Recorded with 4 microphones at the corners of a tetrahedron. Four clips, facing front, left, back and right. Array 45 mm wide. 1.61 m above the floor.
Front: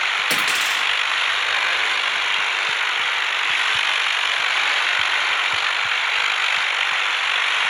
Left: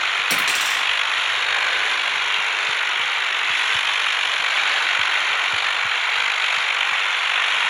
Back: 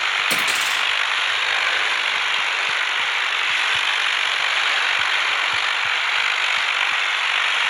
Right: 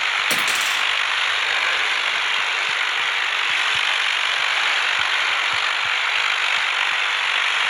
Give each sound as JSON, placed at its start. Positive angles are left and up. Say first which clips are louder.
{"t": 0.3, "sound": "a dropped coin", "louder": "even, even", "azimuth_deg": -10, "distance_m": 2.0}